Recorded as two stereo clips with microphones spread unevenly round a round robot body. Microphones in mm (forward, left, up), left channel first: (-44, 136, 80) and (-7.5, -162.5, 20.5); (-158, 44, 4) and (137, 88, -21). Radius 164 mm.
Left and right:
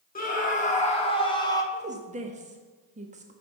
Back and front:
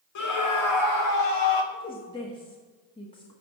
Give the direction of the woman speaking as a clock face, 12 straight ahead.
3 o'clock.